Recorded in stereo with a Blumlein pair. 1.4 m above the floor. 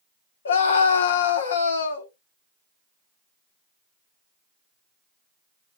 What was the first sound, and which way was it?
A scream, 65° left.